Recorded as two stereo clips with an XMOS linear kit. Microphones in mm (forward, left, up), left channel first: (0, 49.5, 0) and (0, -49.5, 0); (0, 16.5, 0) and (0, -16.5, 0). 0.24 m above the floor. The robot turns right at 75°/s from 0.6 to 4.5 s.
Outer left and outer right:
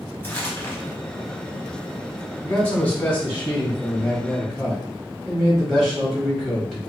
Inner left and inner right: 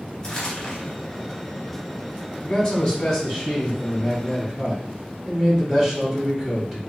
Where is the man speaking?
10° left (ahead or behind), 1.4 m; by 6.9 s centre (ahead or behind), 1.4 m.